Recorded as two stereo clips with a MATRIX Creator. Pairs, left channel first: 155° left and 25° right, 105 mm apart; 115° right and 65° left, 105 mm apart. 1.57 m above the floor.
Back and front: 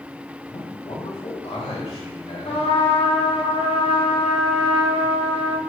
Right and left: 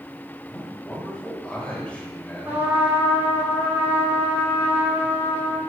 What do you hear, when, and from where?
0.5 s a man speaking: 170° left, 3 m
2.5 s a trumpet: 135° left, 2.5 m